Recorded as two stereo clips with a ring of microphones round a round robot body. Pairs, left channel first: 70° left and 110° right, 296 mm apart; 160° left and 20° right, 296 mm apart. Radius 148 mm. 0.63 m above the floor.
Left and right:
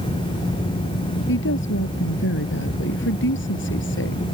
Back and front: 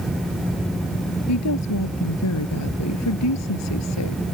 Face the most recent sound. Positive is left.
turn(degrees=120)